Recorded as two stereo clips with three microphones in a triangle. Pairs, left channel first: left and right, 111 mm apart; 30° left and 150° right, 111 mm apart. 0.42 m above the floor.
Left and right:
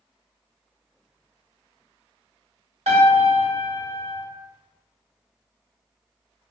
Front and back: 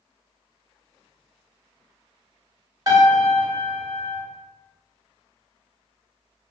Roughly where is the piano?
Right.